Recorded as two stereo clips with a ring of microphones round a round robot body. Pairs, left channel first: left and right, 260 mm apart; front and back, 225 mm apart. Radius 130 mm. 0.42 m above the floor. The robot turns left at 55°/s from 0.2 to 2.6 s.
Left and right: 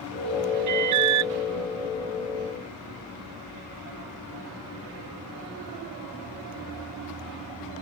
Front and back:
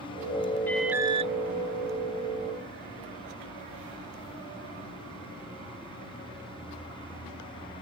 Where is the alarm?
85° right; by 1.3 s 120° right.